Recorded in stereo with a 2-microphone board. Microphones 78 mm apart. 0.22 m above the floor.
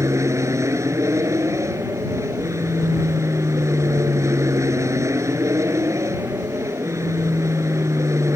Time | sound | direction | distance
0.0 | an aircraft | 40° right (ahead or behind) | ?